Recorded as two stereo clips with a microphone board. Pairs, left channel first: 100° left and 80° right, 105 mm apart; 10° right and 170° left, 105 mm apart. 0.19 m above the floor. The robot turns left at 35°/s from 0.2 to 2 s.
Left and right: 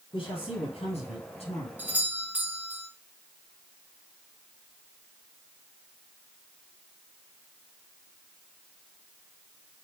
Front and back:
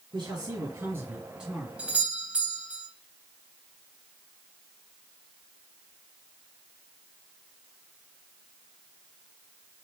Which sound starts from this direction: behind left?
A man speaking, at 0.1 s.